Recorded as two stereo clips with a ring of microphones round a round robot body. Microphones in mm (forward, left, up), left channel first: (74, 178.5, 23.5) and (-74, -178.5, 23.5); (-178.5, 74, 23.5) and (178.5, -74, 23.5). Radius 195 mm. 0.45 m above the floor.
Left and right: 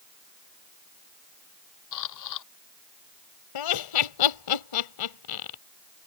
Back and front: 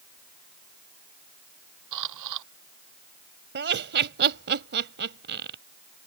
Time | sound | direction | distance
1.9 | a camera shutter | 25° left | ?
3.5 | laughter | 40° left | ?